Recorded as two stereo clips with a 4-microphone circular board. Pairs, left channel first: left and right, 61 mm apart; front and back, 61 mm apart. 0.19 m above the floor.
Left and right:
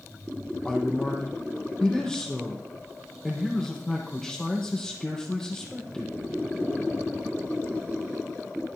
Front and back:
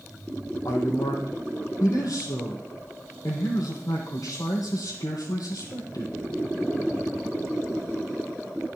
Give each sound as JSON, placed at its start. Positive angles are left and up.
{"t": 0.7, "sound": "a man speaking", "azimuth_deg": 10, "distance_m": 5.5}